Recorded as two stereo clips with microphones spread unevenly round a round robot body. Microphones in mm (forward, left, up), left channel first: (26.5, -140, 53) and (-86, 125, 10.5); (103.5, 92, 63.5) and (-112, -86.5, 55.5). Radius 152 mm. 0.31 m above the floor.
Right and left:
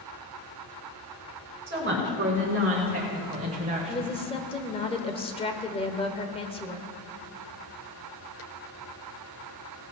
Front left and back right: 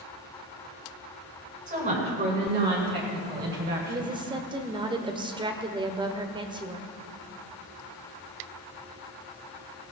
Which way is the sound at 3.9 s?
120° right.